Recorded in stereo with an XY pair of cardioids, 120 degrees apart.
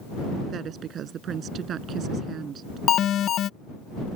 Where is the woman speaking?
55° right.